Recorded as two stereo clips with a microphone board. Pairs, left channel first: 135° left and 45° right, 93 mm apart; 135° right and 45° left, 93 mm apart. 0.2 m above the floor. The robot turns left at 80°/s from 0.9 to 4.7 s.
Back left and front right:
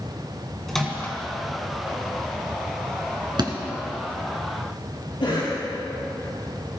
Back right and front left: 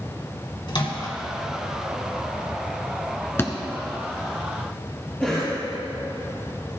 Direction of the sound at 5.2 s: 145° left.